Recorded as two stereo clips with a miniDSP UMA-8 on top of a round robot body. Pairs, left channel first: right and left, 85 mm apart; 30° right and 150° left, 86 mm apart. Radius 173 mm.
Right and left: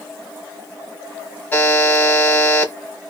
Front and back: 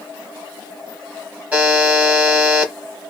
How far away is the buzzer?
About 1.3 m.